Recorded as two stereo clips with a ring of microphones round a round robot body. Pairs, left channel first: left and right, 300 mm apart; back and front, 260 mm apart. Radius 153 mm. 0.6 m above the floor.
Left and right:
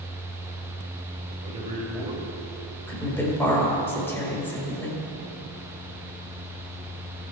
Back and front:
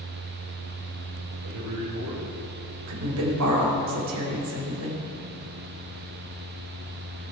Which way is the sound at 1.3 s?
20° right.